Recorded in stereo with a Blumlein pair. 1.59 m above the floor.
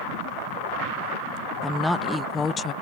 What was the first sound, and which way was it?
A woman speaking, straight ahead.